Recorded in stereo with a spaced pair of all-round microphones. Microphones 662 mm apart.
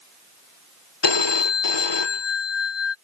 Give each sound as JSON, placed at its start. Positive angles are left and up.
{"t": 1.0, "sound": "a phone ringing", "side_deg": 40}